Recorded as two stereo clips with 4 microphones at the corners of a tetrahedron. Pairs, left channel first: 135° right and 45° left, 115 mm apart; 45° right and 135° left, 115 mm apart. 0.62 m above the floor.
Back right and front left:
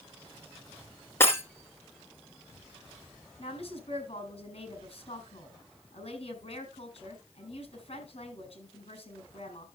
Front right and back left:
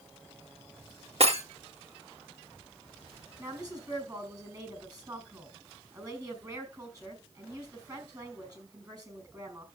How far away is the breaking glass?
About 2.0 m.